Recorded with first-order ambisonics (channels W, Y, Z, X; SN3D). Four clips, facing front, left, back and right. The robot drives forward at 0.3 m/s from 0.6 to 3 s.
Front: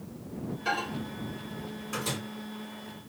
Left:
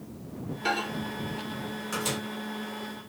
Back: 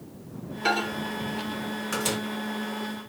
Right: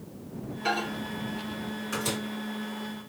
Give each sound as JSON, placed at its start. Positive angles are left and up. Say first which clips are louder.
{"t": 0.7, "sound": "a microwave", "louder": "even, back 6 dB", "azimuth_deg": 170, "distance_m": 1.4}